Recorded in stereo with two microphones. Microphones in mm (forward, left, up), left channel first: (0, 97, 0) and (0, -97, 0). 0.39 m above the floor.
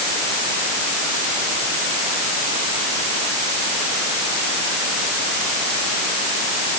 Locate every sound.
Only background noise.